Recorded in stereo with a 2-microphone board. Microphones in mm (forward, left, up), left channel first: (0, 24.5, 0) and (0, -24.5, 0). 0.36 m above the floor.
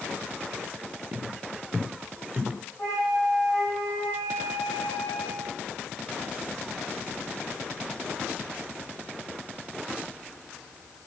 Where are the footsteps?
10° right (ahead or behind), 2 m; by 2.6 s 5° right (ahead or behind), 4 m.